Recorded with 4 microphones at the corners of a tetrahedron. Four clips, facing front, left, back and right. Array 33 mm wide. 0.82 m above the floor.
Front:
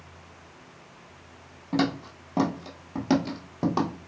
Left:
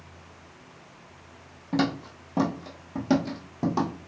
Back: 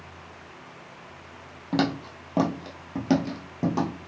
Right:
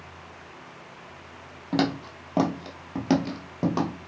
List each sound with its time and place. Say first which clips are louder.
1.7 s footsteps: right 1 dB, back 1 dB; 135° right, 1.2 m; by 3.9 s 35° right, 0.9 m